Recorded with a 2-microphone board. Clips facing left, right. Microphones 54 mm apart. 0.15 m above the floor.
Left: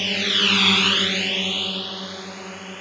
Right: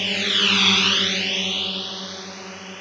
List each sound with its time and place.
0.0 s a drone: centre (ahead or behind); by 2.8 s 5° left (ahead or behind)